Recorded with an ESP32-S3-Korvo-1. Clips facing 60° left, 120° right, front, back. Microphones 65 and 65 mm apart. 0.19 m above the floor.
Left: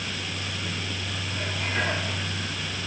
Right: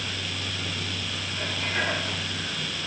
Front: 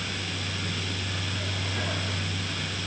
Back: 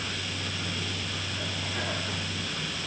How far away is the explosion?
I don't hear an explosion.